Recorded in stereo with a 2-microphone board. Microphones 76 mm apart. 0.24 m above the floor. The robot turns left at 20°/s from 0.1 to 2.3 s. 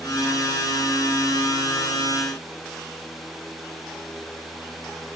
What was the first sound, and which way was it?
Only background noise.